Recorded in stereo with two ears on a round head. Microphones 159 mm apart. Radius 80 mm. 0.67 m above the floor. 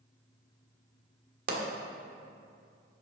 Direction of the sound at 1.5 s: 60° right (ahead or behind).